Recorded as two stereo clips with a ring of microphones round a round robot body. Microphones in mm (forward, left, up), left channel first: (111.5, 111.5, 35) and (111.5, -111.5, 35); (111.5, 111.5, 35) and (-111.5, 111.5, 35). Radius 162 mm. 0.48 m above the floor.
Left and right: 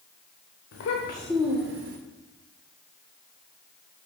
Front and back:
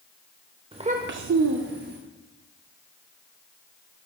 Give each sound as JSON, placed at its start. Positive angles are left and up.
{"t": 0.7, "sound": "a child speaking", "azimuth_deg": 110, "distance_m": 0.9}